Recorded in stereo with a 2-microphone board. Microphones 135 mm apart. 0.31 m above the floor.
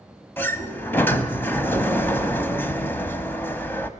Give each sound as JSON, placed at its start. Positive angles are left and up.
{"t": 0.4, "sound": "a sliding door", "side_deg": 15, "distance_m": 1.1}